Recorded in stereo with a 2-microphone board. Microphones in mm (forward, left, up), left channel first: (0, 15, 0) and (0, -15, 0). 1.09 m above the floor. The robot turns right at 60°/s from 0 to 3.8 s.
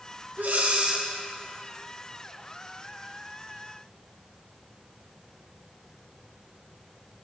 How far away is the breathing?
About 1.0 m.